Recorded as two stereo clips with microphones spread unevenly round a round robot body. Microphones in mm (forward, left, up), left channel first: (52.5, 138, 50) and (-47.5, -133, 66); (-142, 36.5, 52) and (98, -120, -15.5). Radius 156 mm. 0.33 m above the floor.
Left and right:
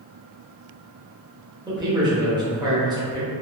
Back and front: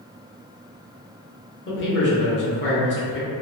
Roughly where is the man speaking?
Behind.